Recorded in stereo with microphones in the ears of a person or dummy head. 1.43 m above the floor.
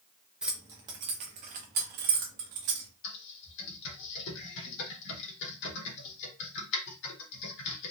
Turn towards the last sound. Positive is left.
turn(degrees=55)  # may be behind; listen again after turning